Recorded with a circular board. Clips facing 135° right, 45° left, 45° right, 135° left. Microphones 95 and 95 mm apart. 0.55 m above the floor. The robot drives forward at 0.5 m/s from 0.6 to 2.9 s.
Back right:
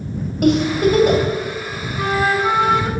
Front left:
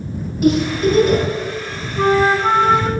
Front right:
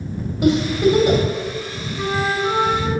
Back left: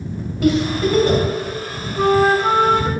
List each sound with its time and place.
0.4 s a giggle: 115° right, 2.5 m; by 1.2 s 120° right, 2.5 m
2.0 s a flute: 100° left, 0.9 m; by 2.9 s 125° left, 1.1 m